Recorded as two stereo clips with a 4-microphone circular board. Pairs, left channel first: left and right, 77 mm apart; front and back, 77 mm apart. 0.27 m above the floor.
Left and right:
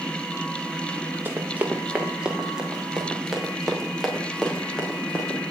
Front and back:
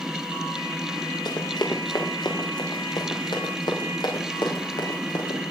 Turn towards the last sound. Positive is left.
turn(degrees=10)